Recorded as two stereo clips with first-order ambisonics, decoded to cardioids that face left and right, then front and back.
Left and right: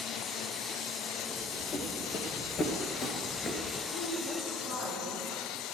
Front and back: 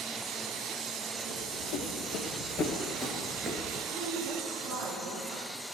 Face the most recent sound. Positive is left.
turn(degrees=130)